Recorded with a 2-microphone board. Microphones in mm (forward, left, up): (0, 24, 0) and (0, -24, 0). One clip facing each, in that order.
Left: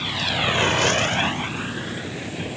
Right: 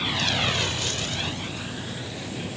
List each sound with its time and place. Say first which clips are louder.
0.0 s a vehicle: left 1 dB; 5° right (ahead or behind); by 2.6 s 30° left (ahead or behind)